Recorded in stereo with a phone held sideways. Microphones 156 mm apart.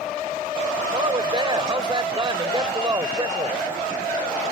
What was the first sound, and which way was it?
A woman speaking, 30° right (ahead or behind).